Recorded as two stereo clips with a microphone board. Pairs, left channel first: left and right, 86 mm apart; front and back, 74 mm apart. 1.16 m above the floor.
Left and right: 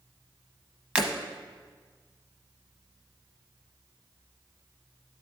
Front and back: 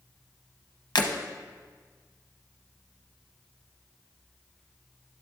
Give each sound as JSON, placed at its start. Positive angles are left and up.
{"t": 0.9, "sound": "breaking glass", "azimuth_deg": -15, "distance_m": 0.8}